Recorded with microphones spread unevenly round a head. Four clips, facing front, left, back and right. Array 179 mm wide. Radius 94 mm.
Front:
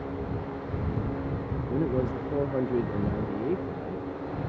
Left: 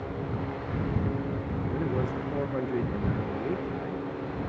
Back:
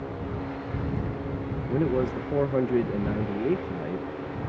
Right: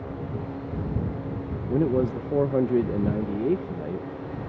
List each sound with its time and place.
1.7 s a man speaking: 110° right